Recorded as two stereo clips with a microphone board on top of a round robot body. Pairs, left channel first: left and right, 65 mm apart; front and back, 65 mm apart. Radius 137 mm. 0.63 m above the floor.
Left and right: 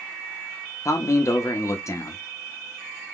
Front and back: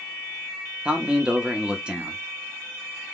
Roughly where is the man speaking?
Left.